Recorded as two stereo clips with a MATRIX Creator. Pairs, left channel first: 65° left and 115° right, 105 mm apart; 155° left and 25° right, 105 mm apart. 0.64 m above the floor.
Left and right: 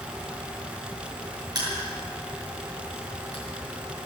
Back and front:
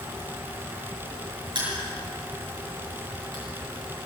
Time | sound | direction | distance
1.6 | crushing | 65° right | 6.5 m